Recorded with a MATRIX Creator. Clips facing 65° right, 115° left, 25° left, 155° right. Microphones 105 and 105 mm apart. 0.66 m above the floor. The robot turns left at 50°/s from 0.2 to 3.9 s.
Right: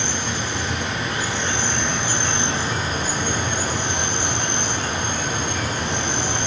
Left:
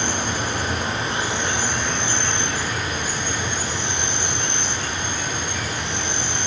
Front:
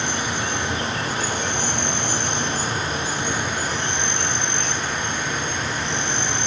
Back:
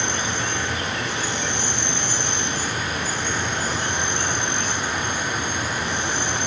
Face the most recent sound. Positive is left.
turn(degrees=-80)